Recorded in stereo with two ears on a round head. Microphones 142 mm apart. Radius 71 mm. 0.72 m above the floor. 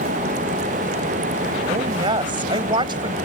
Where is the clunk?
I don't hear a clunk.